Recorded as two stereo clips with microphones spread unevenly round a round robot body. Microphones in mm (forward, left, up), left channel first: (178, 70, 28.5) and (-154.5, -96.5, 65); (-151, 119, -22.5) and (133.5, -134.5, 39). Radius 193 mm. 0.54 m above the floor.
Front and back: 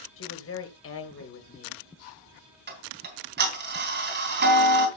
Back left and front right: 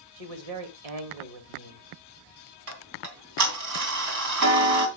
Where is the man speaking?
25° right, 2.5 m.